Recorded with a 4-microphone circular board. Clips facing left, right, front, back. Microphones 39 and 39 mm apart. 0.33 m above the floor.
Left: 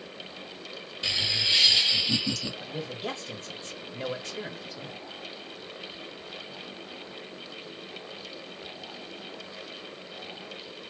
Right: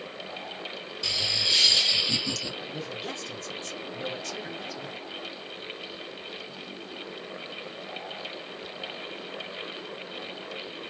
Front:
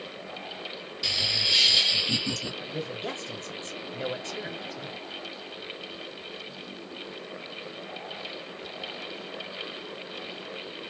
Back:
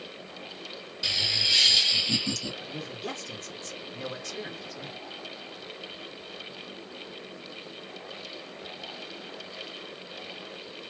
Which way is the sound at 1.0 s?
90° left.